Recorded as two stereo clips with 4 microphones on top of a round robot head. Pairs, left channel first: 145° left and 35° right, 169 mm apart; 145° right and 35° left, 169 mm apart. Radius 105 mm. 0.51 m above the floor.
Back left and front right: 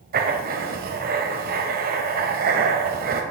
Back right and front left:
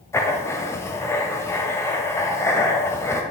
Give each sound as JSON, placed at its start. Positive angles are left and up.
{"t": 0.1, "sound": "writing", "azimuth_deg": -70, "distance_m": 2.0}